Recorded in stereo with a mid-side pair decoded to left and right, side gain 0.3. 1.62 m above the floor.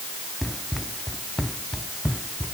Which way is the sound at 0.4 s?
Straight ahead.